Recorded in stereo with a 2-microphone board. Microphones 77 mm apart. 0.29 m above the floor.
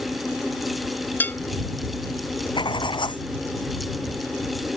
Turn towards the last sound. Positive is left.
turn(degrees=85)